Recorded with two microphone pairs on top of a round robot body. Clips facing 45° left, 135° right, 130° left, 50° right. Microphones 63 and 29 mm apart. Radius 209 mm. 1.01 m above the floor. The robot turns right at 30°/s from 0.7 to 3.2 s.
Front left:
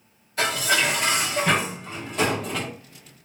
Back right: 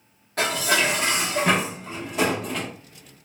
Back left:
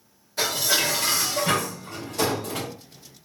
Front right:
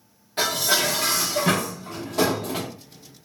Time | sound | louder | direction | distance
0.4 | dishes clattering | back right 1 dB, front right 1 dB | 100° right | 0.5 m